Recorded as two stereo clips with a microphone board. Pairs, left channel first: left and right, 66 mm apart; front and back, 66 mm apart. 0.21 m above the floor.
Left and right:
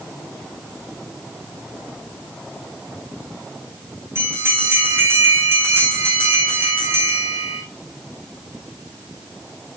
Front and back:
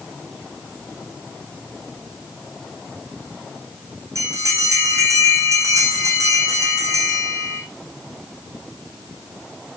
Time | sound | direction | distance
4.2 | a bell | 145° right | 5.5 m